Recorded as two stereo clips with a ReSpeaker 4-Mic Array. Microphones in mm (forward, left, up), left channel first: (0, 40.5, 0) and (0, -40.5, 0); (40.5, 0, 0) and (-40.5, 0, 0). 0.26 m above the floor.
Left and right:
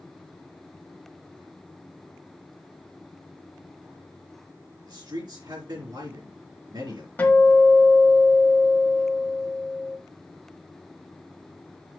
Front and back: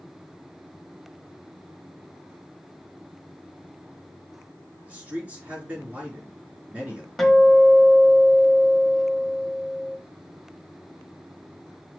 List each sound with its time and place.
4.9 s a man speaking: 110° right, 3.5 m
7.2 s a guitar: 85° left, 1.2 m